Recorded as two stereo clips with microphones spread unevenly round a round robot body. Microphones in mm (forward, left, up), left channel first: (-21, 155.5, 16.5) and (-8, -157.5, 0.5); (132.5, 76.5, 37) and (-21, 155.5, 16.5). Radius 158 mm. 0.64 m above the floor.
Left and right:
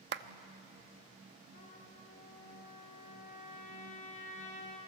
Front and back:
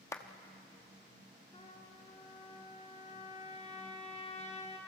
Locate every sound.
0.1 s a clap: 105° right, 0.8 m
1.5 s a trumpet: 25° left, 3.5 m